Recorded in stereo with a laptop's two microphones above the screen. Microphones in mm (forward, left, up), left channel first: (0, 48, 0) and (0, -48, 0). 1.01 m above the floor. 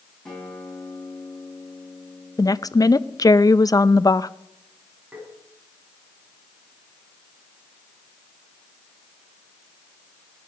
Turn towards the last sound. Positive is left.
turn(degrees=-10)  # may be behind; listen again after turning